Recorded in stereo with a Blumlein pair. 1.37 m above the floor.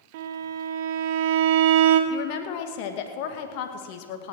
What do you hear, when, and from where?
0.1 s a violin: 50° right, 1.4 m
2.1 s a woman speaking: 45° left, 1.9 m